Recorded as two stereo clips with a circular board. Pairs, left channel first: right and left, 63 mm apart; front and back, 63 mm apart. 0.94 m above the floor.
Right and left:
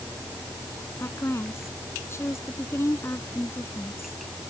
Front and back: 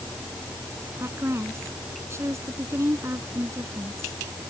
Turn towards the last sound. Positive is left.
turn(degrees=-135)